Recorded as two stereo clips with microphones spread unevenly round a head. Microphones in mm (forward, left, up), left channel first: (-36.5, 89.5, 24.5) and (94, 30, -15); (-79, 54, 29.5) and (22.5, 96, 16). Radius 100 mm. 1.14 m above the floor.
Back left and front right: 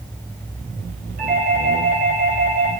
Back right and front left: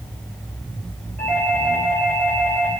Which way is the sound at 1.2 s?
80° right.